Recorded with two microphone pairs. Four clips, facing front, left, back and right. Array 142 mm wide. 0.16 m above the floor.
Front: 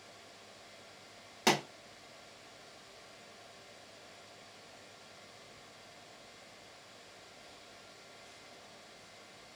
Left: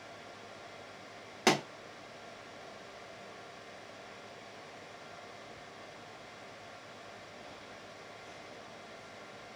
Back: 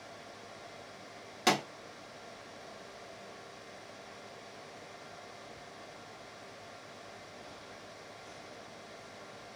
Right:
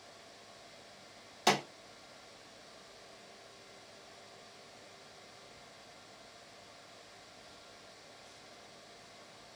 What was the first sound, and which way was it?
A pop, 75° left.